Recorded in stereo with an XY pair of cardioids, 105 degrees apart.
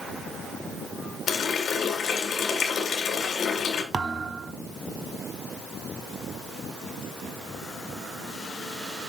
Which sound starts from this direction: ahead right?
A thud, at 3.9 s.